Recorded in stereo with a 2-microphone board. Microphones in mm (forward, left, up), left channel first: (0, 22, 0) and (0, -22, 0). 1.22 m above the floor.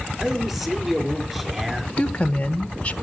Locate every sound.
0.2 s a man speaking: 10° right (ahead or behind), 4.5 m
2.0 s a woman speaking: 30° left (ahead or behind), 1.1 m